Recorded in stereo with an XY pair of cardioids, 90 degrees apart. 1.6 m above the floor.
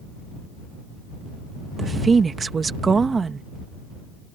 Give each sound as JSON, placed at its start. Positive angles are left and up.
{"t": 1.8, "sound": "a woman speaking", "azimuth_deg": -40}